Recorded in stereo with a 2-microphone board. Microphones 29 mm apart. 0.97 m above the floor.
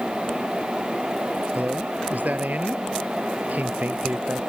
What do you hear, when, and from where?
1.6 s a man speaking: 65° right (ahead or behind)